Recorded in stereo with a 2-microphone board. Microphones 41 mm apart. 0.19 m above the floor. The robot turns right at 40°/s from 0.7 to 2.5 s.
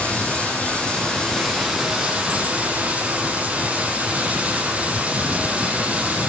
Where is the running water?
145° left, 7 m; by 6.3 s 140° right, 7 m.